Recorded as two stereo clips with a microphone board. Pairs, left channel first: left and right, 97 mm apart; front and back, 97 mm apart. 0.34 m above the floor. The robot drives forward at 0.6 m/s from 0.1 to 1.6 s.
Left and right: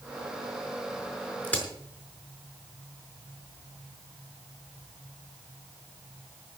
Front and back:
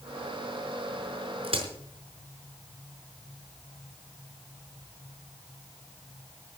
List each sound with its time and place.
1.4 s a crack: 160° left, 5 m